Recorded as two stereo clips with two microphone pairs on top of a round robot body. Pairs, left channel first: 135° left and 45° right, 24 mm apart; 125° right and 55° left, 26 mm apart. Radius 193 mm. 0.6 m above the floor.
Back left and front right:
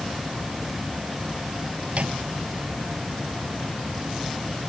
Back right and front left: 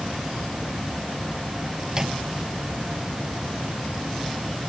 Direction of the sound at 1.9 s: 15° right.